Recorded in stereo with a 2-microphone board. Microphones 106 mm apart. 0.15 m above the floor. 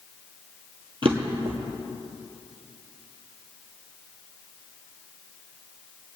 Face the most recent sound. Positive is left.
turn(degrees=-55)  # may be behind; listen again after turning